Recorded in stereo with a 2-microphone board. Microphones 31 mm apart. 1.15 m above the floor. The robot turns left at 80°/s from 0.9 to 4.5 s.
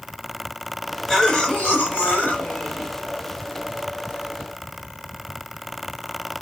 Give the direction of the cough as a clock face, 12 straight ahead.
6 o'clock.